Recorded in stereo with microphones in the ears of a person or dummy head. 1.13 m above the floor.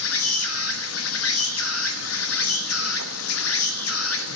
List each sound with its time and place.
0.0 s an insect: 85° left, 1.2 m